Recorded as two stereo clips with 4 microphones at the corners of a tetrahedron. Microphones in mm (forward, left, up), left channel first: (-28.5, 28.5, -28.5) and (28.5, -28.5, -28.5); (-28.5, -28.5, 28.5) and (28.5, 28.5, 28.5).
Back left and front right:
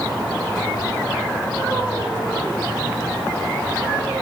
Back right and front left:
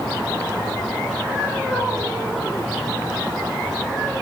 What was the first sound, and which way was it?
Only background noise.